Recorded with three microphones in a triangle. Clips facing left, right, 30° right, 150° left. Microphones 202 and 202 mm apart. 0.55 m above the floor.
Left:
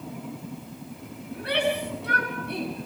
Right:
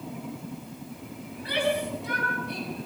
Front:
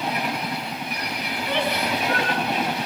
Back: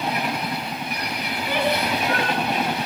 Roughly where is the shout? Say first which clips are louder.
Left 1 dB, back 2 dB; ahead left.